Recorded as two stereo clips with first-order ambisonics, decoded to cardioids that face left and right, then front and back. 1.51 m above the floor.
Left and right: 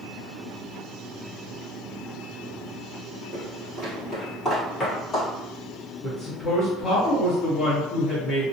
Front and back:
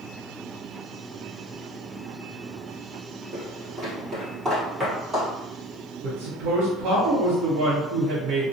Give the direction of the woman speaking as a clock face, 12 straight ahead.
7 o'clock.